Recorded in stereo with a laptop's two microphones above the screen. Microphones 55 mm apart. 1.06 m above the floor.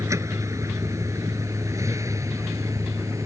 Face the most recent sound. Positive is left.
turn(degrees=-80)